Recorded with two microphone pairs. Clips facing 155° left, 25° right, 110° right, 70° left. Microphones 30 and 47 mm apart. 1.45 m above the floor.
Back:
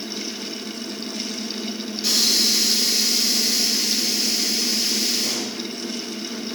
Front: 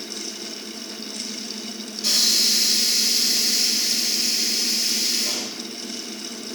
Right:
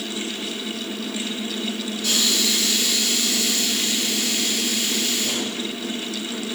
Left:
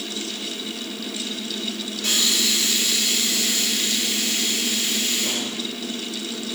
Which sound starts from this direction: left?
A hiss, at 2.0 s.